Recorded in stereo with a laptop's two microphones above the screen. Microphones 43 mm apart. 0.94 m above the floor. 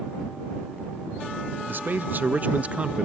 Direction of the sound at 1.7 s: 50° right (ahead or behind).